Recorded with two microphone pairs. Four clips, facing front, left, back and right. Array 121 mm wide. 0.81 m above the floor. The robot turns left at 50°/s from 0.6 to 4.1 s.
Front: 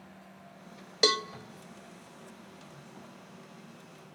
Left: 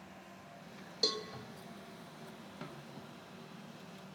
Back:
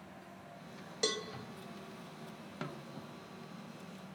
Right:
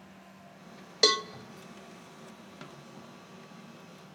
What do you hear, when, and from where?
1.0 s a cowbell: 60° right, 0.7 m; by 1.2 s 70° right, 0.7 m
2.6 s a snare drum: 165° right, 2.0 m; by 3.0 s 175° left, 2.0 m